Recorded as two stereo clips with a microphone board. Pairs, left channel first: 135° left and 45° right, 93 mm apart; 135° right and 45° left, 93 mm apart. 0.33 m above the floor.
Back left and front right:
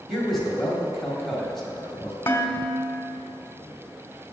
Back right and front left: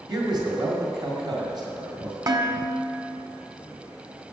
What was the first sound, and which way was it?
A man speaking, 45° left.